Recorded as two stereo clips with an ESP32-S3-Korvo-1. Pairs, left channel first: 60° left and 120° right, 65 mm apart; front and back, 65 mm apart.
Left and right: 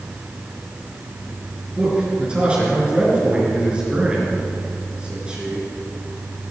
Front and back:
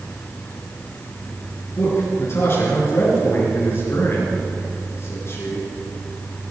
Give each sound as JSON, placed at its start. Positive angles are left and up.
{"t": 1.8, "sound": "a man speaking", "azimuth_deg": -50, "distance_m": 5.0}